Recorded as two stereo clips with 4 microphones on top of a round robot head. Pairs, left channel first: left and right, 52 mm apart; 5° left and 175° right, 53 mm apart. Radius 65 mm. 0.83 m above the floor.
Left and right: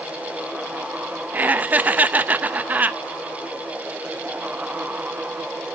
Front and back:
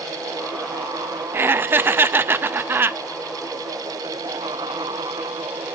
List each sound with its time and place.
1.3 s laughter: 140° right, 0.6 m